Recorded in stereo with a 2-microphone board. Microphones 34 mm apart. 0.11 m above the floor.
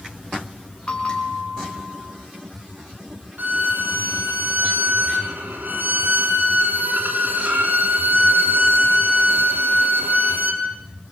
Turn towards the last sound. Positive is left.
turn(degrees=-70)  # may be behind; listen again after turning